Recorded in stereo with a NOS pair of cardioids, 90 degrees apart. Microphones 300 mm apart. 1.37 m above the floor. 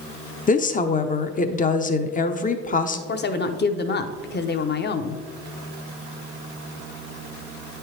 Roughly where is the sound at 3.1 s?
Ahead left.